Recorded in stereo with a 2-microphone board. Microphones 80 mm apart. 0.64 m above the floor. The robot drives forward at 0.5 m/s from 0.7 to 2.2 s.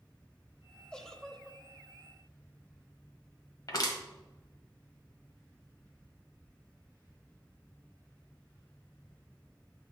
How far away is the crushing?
About 1.5 m.